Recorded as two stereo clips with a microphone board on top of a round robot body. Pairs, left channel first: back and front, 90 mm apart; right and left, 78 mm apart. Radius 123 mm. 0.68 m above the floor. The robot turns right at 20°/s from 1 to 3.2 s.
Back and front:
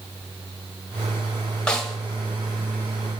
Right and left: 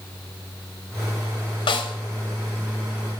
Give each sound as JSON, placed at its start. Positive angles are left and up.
{"t": 1.7, "sound": "a snare drum", "azimuth_deg": -100, "distance_m": 1.0}